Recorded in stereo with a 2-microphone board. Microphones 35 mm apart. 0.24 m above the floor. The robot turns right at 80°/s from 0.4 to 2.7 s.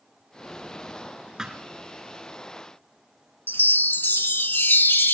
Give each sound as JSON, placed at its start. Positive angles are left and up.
{"t": 1.4, "sound": "a thud", "side_deg": -15, "distance_m": 1.5}
{"t": 3.5, "sound": "a chime", "side_deg": 75, "distance_m": 0.6}